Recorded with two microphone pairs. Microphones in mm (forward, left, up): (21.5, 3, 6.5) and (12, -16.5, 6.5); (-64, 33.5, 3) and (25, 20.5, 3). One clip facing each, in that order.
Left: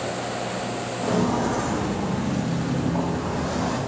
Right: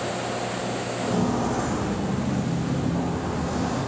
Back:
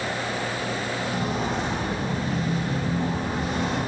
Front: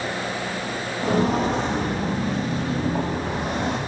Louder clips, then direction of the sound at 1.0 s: Left 2 dB, front 9 dB; straight ahead.